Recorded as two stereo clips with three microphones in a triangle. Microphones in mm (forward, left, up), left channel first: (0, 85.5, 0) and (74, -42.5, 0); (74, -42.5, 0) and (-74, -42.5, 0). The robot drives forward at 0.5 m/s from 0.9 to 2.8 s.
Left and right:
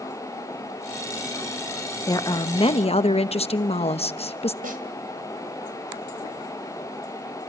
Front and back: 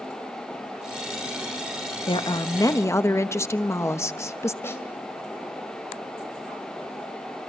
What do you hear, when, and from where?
2.1 s a woman speaking: 55° left, 1.1 m; by 4.5 s 70° left, 0.9 m
4.6 s a snare drum: 70° right, 2.5 m